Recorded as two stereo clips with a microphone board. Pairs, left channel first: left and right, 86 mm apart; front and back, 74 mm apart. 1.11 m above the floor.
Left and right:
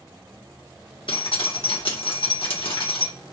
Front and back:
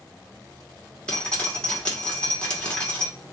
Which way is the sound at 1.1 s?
75° left.